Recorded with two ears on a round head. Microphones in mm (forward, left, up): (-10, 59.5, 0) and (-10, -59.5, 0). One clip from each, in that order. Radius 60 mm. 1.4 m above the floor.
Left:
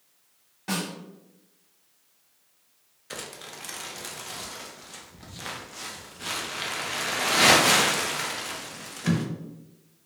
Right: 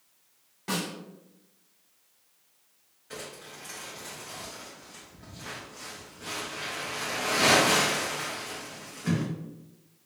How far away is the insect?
I don't hear an insect.